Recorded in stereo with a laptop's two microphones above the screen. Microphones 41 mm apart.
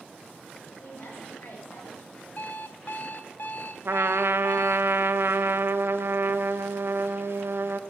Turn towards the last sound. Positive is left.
turn(degrees=-65)  # may be behind; listen again after turning